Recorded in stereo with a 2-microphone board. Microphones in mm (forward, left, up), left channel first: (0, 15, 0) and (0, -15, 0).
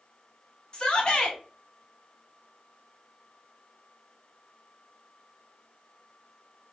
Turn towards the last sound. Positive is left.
turn(degrees=35)  # may be behind; listen again after turning